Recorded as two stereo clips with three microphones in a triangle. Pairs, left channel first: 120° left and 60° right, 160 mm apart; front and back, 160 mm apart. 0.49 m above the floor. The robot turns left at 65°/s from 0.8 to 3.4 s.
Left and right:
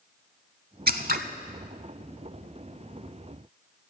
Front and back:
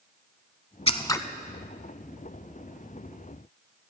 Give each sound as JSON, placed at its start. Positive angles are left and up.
{"t": 0.9, "sound": "scissors", "azimuth_deg": -50, "distance_m": 0.7}